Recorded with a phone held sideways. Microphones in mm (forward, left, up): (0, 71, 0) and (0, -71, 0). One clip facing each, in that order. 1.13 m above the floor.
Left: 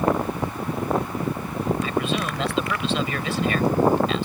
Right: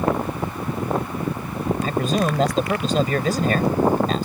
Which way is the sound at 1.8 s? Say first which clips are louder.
Right 3 dB; 40° right (ahead or behind).